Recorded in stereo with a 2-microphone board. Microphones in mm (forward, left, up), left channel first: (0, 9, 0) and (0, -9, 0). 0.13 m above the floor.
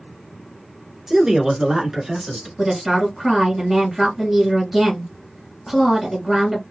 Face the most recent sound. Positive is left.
turn(degrees=-5)  # may be behind; listen again after turning